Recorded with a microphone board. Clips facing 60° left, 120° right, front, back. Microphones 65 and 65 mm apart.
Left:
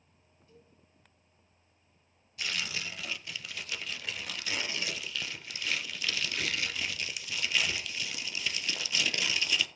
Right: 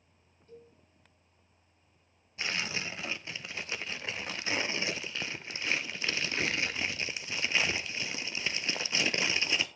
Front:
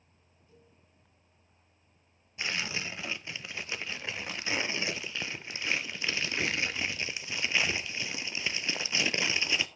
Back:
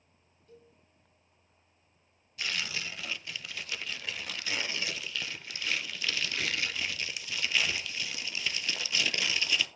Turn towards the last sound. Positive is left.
turn(degrees=-65)